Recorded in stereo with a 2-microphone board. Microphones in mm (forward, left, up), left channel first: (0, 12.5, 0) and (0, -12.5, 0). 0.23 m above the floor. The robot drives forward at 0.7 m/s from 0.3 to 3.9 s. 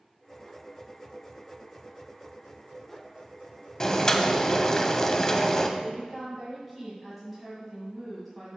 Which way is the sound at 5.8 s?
Centre (ahead or behind).